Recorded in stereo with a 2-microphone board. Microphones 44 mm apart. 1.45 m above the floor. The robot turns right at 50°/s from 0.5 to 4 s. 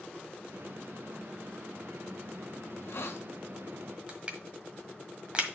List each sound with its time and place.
2.7 s a hiss: 45° left (ahead or behind), 1.0 m; by 3.2 s 70° left (ahead or behind), 1.0 m
4.1 s crushing: 25° right (ahead or behind), 1.4 m